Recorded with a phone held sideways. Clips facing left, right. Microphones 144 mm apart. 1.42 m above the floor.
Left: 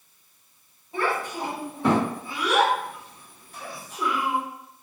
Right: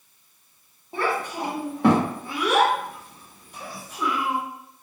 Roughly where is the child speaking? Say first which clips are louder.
Right 1 dB; right.